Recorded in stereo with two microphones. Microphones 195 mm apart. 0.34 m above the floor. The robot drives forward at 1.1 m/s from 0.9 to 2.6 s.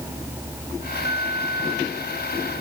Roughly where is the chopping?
No chopping in this recording.